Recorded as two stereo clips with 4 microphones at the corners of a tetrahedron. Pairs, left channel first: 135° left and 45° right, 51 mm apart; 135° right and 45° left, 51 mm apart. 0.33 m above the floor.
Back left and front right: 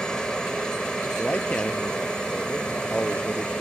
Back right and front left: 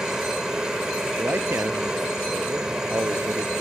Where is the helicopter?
95° left; by 3.6 s 100° left.